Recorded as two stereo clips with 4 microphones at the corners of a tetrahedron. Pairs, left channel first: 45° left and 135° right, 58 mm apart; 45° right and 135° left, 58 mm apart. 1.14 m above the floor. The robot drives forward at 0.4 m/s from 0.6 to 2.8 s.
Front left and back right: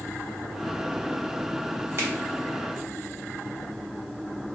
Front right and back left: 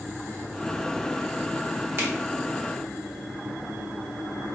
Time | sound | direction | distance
2.0 | a finger snap | 175° right | 1.1 m